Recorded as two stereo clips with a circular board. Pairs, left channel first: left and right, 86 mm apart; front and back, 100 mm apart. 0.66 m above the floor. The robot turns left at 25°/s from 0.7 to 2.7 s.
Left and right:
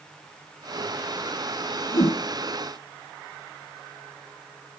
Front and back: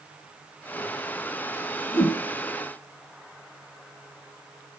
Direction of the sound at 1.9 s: 65° left.